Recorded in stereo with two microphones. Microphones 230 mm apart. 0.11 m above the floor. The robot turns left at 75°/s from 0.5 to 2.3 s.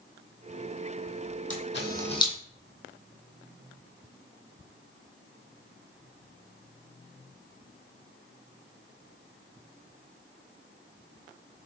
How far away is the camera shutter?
About 0.9 m.